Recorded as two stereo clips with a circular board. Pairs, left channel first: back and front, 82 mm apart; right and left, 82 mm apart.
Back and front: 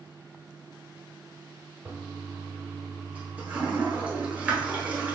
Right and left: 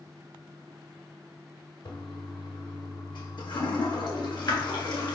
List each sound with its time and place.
1.9 s a toilet flushing: 70° right, 1.2 m